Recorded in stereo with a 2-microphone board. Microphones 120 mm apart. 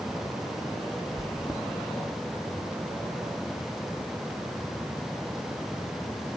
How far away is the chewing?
About 2 m.